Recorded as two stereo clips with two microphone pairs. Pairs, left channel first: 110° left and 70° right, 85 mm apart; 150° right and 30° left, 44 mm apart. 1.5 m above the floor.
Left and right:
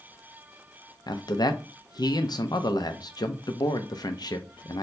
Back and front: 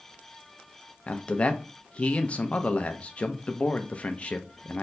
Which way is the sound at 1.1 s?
150° left.